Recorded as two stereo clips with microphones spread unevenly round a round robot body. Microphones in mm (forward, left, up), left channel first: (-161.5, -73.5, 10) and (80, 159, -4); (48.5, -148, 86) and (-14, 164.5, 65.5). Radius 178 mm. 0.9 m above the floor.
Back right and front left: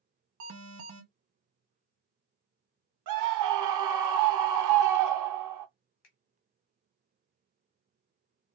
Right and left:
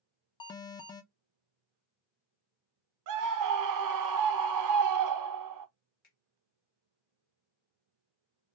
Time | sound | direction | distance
0.4 | an alarm | straight ahead | 0.5 m
3.1 | a scream | 75° left | 0.7 m
6.0 | a finger snap | 145° right | 1.2 m